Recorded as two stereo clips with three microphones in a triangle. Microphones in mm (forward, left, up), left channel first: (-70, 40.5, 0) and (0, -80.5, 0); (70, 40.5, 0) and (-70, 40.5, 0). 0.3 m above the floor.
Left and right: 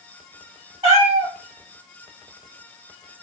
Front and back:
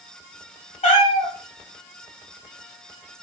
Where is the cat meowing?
20° right, 0.9 m.